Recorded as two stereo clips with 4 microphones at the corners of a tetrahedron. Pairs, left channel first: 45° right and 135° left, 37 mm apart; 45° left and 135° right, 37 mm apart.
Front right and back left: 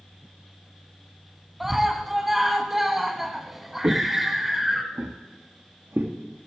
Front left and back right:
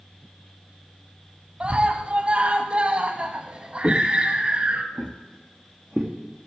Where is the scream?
150° right, 1.2 m.